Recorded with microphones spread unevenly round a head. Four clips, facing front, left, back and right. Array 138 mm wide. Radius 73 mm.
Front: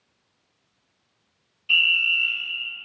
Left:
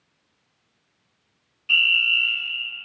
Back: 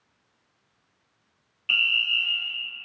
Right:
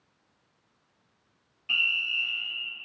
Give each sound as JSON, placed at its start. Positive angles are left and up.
{"t": 1.7, "sound": "a fire alarm", "azimuth_deg": 160, "distance_m": 2.0}